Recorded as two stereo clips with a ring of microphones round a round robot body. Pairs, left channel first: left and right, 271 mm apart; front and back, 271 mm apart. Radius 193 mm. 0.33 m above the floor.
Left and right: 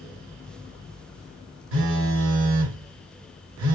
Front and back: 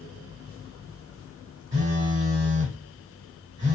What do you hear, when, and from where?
1.7 s a phone buzzing: 105° right, 1.3 m